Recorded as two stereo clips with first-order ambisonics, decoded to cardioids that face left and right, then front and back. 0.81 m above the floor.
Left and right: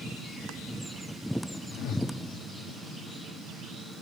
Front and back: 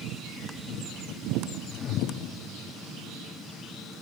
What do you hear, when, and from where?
1.7 s a whoosh: 55° left, 1.6 m